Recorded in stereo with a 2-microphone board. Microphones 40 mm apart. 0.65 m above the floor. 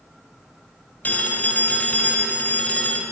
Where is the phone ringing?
40° left (ahead or behind), 2 m.